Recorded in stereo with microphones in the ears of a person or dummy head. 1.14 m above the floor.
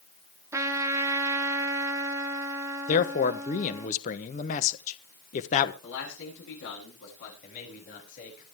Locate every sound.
0.5 s a trumpet: 15° right (ahead or behind), 1.7 m
2.9 s a man speaking: 40° left (ahead or behind), 0.9 m
5.8 s a man speaking: 75° left (ahead or behind), 8.5 m
7.4 s a man speaking: 50° left (ahead or behind), 7.5 m